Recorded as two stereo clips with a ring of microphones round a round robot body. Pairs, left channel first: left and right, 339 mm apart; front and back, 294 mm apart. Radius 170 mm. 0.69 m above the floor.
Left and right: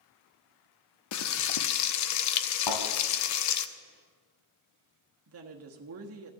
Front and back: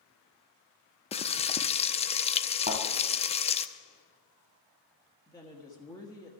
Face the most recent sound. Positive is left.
turn(degrees=-75)